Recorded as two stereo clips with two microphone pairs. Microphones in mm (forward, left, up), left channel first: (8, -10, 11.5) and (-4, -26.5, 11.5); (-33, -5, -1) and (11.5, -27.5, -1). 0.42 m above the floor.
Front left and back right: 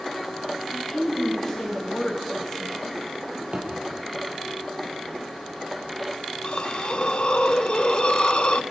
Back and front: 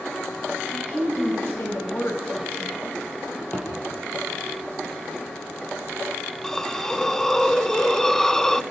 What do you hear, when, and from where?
0.7 s a woman speaking: 120° left, 2.5 m
3.5 s a thud: 155° right, 5.5 m
6.4 s a hiss: 75° left, 0.5 m